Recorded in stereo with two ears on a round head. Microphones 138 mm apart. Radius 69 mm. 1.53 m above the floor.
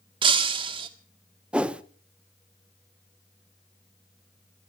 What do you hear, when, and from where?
0.2 s breaking glass: 30° right (ahead or behind), 1.4 m
1.5 s a whoosh: 10° right (ahead or behind), 0.8 m